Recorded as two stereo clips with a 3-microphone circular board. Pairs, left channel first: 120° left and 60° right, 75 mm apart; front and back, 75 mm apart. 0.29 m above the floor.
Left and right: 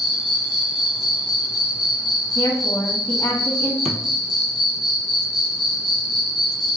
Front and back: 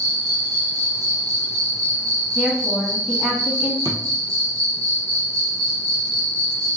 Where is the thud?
150° right, 0.9 m.